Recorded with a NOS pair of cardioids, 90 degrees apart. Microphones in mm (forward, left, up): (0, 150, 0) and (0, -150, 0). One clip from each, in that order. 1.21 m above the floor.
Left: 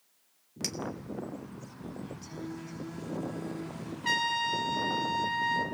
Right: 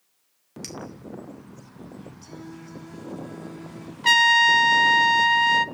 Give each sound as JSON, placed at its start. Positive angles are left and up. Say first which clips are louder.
{"t": 0.6, "sound": "a clink", "louder": "left 3 dB", "azimuth_deg": 20, "distance_m": 3.0}
{"t": 2.2, "sound": "singing", "louder": "right 1 dB", "azimuth_deg": -10, "distance_m": 8.5}
{"t": 4.0, "sound": "a trumpet", "louder": "right 13 dB", "azimuth_deg": -65, "distance_m": 1.0}